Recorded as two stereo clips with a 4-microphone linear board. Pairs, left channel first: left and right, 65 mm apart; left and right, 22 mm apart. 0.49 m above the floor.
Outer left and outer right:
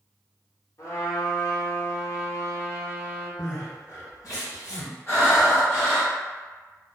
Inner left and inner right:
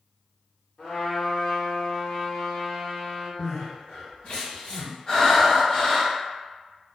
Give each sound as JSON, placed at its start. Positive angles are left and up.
{"t": 0.8, "sound": "a trumpet", "side_deg": 55, "distance_m": 0.9}
{"t": 3.4, "sound": "crying", "side_deg": 60, "distance_m": 1.9}
{"t": 5.1, "sound": "breathing", "side_deg": 35, "distance_m": 1.1}